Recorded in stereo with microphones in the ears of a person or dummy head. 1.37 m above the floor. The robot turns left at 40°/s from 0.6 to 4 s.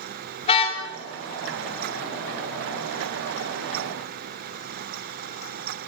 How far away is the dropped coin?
I don't hear a dropped coin.